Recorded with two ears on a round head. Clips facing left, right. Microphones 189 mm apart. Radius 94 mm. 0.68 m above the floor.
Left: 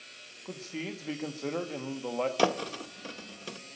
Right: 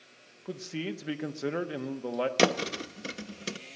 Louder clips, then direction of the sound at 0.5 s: Right 3 dB; 15° right (ahead or behind).